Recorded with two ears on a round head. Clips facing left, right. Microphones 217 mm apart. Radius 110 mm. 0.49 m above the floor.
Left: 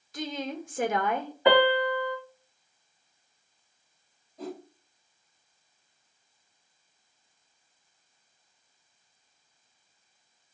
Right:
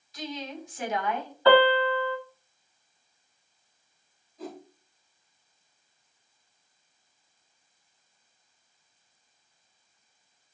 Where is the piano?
15° left (ahead or behind), 0.9 m.